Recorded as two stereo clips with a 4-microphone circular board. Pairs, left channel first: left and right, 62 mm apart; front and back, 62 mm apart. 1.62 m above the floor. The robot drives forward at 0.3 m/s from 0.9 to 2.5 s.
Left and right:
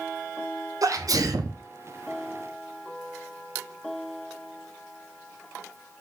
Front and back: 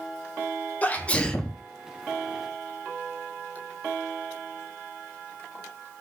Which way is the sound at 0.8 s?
60° right.